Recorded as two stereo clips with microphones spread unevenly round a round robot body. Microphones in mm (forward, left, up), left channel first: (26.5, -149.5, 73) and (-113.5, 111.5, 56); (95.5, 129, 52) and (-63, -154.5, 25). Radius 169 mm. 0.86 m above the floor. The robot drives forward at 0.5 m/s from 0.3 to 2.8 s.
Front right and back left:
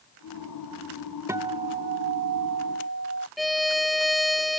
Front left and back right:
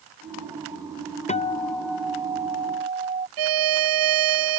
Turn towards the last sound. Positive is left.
turn(degrees=-150)